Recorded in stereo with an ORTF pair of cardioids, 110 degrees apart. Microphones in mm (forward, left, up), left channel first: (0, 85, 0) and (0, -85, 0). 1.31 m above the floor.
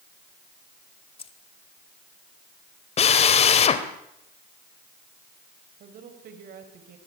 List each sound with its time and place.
1.2 s keys jangling: 35° left, 2 m
3.0 s a drill: 40° left, 2.5 m
5.8 s a woman speaking: 65° right, 6 m